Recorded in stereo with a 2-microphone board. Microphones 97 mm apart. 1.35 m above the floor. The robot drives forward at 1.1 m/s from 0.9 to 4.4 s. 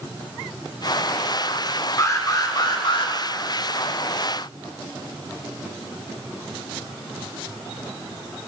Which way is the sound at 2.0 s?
35° left (ahead or behind).